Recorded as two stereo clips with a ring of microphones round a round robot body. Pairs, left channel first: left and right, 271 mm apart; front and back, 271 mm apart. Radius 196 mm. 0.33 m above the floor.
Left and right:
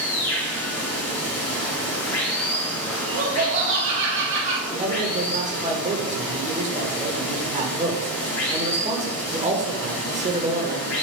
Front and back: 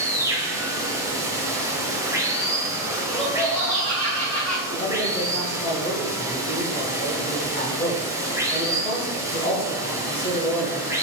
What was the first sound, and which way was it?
Running water, 100° left.